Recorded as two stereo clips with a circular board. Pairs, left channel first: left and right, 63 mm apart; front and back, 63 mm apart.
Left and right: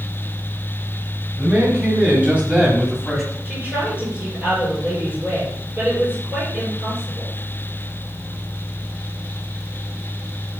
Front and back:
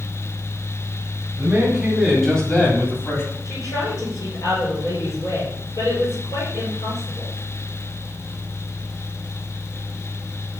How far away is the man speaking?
About 1.8 m.